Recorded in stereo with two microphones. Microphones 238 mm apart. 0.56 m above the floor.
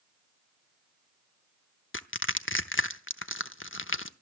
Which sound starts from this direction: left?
Crushing, at 1.9 s.